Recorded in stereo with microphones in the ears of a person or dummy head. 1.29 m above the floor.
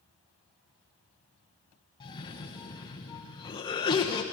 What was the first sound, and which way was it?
A cough, 20° left (ahead or behind).